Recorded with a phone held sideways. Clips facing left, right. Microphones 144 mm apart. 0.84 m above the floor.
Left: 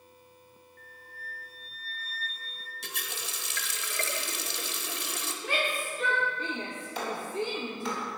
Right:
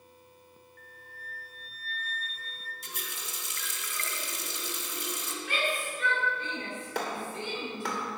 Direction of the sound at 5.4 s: 40° left (ahead or behind).